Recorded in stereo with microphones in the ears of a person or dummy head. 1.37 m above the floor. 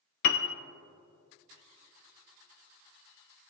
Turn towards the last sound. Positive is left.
turn(degrees=50)  # may be behind; listen again after turning